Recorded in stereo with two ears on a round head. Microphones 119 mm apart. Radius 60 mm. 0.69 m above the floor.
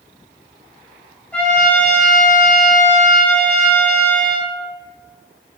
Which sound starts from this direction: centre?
A trumpet, at 1.3 s.